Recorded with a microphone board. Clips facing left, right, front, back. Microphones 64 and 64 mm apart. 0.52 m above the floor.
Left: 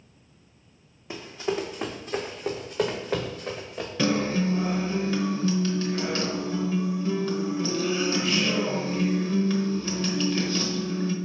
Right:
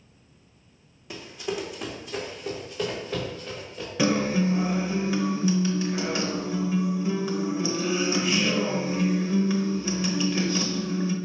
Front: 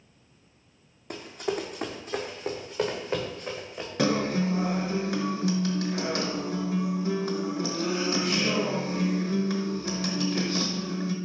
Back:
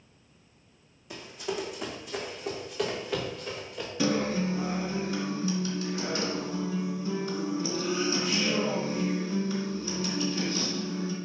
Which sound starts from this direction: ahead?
A guitar, at 4.0 s.